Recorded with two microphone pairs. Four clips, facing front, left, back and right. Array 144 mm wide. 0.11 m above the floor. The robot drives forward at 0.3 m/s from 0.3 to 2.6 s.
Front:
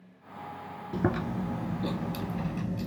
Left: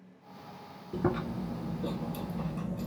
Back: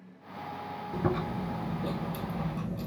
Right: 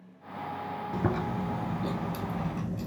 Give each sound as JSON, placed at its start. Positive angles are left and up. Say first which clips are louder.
{"t": 0.9, "sound": "chewing", "louder": "even, front 2 dB", "azimuth_deg": -15, "distance_m": 1.9}